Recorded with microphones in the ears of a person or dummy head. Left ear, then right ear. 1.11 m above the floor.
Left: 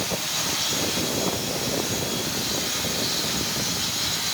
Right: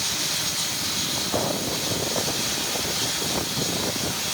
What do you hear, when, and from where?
Only background noise.